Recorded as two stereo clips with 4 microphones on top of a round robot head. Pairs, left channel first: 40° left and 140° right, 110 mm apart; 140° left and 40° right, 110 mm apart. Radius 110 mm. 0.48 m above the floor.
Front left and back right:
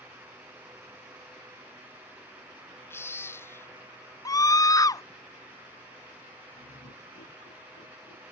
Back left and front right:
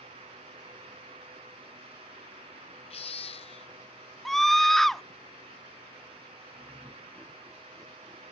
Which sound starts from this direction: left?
A baby crying, at 2.9 s.